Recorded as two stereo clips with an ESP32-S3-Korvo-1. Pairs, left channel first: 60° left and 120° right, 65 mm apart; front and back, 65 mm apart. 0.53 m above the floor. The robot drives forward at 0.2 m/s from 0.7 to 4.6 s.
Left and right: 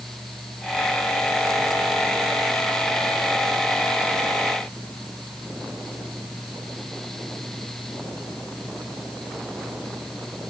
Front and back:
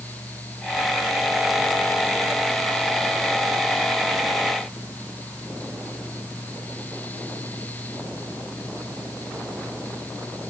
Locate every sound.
Only background noise.